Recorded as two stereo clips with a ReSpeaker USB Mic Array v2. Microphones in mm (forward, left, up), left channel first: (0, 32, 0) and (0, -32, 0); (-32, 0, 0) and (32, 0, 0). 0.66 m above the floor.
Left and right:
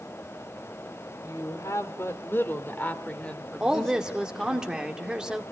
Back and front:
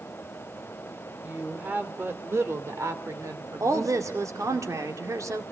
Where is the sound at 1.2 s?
70° left, 2 m; by 4.6 s straight ahead, 3 m.